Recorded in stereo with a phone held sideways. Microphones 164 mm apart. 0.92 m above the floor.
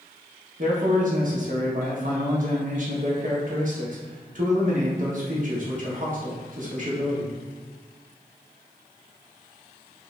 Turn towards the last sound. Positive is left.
turn(degrees=-55)  # may be behind; listen again after turning